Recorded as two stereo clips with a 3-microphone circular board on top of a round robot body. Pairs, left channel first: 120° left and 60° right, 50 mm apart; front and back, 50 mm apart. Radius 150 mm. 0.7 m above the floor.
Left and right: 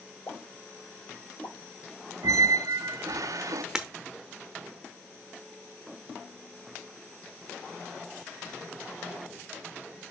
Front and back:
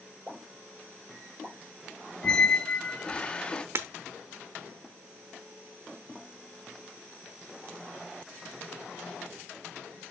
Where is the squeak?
70° right, 0.6 m.